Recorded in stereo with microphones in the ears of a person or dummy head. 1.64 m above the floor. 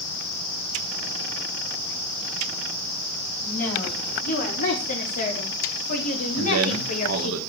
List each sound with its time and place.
3.4 s a woman speaking: 40° left (ahead or behind), 4.5 m
6.3 s a man speaking: 80° right, 2.5 m